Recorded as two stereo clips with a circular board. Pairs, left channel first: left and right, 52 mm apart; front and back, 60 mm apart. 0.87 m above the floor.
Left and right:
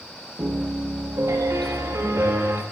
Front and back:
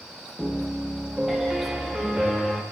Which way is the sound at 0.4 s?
90° right.